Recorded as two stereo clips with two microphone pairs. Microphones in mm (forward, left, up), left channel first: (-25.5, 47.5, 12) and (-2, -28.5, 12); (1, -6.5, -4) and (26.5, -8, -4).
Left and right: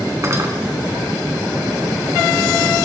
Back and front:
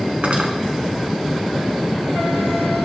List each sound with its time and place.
0.2 s cutlery clinking: 25° right, 1.7 m